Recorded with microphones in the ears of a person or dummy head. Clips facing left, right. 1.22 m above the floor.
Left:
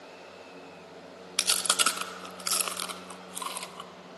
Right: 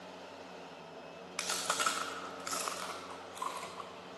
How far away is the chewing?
About 0.6 m.